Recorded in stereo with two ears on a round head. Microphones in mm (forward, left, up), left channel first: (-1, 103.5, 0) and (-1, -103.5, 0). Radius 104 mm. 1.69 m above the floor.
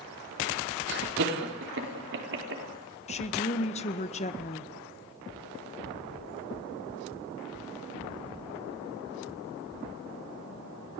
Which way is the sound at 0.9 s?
55° right (ahead or behind).